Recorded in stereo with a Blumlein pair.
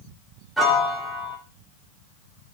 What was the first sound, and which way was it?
A piano, straight ahead.